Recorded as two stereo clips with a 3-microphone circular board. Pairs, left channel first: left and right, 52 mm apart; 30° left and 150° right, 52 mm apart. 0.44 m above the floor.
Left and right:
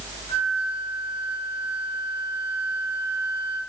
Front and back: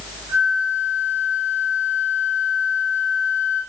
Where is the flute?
20° right, 3 m.